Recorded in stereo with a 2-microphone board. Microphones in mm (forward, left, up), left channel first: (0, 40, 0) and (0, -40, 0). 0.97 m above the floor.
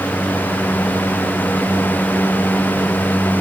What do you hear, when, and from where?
Only background noise.